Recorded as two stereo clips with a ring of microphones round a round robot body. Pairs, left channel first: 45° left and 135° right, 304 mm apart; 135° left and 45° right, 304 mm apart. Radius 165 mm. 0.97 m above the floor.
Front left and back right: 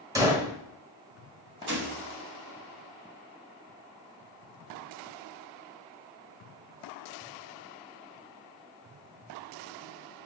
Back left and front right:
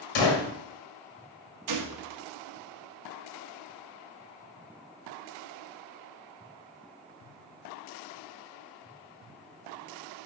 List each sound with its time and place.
0.1 s a gunshot: 145° left, 1.6 m
1.7 s a gunshot: 75° right, 1.2 m